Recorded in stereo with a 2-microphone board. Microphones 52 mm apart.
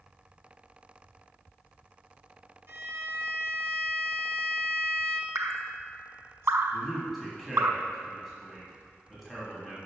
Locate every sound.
2.7 s a violin: 50° right (ahead or behind), 0.9 m
5.3 s dripping: 65° right (ahead or behind), 0.6 m
6.7 s a man speaking: 5° right (ahead or behind), 1.6 m